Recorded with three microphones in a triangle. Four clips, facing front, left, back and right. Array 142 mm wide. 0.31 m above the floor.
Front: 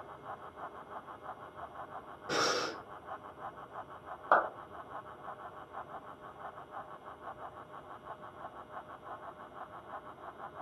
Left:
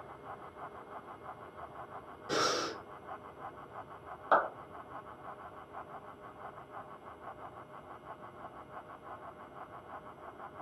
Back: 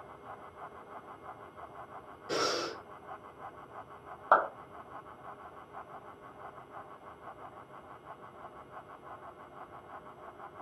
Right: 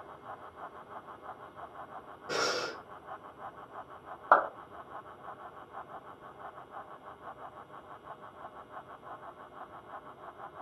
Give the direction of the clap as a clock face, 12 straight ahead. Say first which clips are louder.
Right 4 dB, back 2 dB; 3 o'clock.